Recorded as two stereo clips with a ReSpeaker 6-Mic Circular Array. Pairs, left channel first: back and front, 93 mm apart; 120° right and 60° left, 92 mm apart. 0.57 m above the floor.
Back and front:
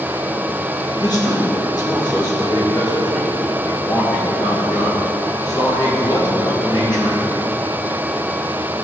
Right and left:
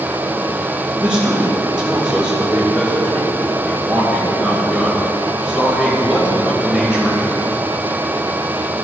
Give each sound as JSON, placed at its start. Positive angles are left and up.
{"t": 1.0, "sound": "a man speaking", "azimuth_deg": 140, "distance_m": 2.5}